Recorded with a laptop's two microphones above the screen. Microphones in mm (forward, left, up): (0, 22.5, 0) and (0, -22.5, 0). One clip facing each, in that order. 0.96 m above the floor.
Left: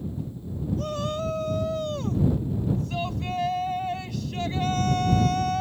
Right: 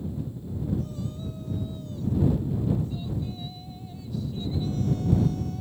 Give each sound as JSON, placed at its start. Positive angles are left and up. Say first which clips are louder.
{"t": 0.8, "sound": "a shout", "louder": "left 6 dB", "side_deg": 65}